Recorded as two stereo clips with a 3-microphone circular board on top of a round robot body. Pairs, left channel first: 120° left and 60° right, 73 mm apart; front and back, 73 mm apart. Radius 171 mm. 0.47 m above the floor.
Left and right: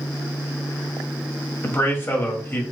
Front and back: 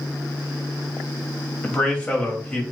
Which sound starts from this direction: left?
A man speaking, at 1.6 s.